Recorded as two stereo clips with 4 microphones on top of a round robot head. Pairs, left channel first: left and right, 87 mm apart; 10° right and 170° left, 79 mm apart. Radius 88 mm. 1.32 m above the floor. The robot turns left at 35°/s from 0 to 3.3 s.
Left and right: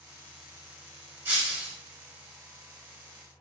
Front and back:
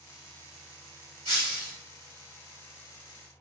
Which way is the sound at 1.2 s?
150° right.